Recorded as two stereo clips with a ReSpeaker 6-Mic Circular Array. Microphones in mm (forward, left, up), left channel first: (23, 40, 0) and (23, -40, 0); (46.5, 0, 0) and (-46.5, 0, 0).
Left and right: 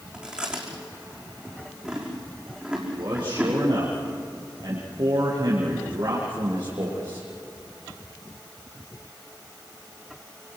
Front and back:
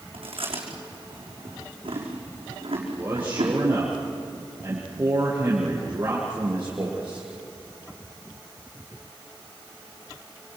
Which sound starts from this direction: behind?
Chewing, at 0.1 s.